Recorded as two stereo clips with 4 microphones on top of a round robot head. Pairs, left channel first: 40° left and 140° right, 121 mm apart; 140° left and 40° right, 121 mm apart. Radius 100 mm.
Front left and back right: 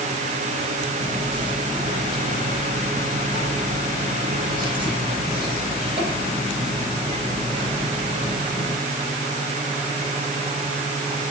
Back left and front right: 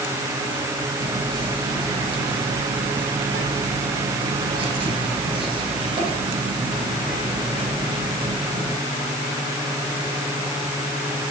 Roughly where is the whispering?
Right.